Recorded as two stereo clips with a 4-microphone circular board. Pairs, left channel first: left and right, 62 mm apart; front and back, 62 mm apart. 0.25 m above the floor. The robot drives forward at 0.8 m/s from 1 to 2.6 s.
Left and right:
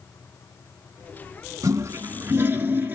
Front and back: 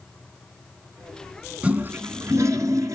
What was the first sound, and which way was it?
A toilet flushing, 110° right.